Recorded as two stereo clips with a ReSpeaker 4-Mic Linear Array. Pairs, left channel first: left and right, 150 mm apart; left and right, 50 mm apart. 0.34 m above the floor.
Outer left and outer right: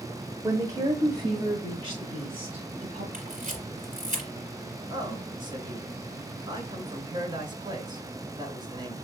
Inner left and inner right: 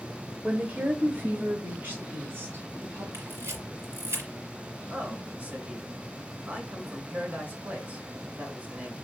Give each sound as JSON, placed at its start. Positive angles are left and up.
{"t": 0.4, "sound": "a woman speaking", "side_deg": -20, "distance_m": 0.9}
{"t": 3.1, "sound": "a camera shutter", "side_deg": -60, "distance_m": 2.5}
{"t": 4.9, "sound": "a man speaking", "side_deg": -30, "distance_m": 1.7}